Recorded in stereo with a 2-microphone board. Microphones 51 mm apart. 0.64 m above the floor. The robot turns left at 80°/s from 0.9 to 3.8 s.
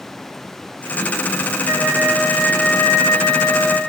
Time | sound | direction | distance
1.6 | a flute | 120° right | 3.5 m